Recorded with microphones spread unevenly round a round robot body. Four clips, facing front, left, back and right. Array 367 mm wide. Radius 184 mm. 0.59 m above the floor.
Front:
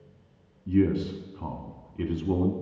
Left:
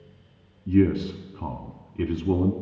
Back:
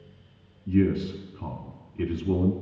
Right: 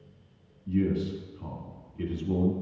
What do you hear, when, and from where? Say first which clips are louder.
0.7 s a man speaking: left 7 dB, even; 100° left, 1.2 m